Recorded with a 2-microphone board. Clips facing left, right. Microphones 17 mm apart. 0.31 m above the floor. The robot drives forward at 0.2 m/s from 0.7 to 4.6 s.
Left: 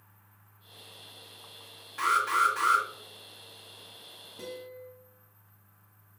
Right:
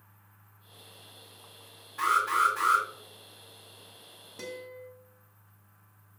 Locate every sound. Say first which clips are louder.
2.0 s an alarm: even; 45° left (ahead or behind), 1.9 m
4.4 s a guitar: right 1 dB; 65° right (ahead or behind), 0.8 m